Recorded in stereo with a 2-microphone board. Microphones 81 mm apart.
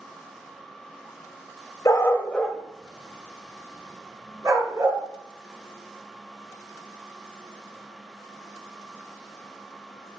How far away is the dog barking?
About 0.5 m.